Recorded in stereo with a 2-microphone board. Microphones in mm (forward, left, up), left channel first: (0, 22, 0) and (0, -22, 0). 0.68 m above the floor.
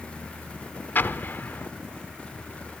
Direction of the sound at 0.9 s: 50° left (ahead or behind).